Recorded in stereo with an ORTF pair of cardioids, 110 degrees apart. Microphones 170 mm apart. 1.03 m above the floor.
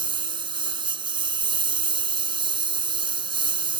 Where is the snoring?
I don't hear snoring.